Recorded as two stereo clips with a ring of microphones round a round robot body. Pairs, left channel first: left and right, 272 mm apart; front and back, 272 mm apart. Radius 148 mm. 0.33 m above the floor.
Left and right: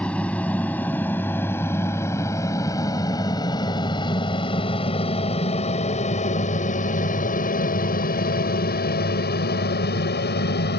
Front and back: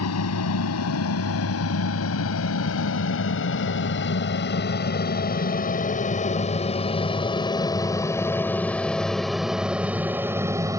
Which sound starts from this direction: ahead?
An aircraft, at 0.0 s.